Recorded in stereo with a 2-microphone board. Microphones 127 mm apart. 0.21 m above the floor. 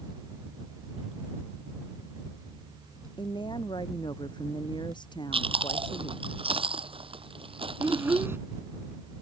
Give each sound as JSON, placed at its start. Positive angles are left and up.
{"t": 3.2, "sound": "a woman speaking", "side_deg": 35}
{"t": 5.3, "sound": "chewing", "side_deg": -45}
{"t": 7.8, "sound": "a child speaking", "side_deg": -20}